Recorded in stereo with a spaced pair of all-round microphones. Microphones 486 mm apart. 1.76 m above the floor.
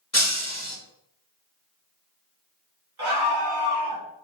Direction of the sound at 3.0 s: 85° right.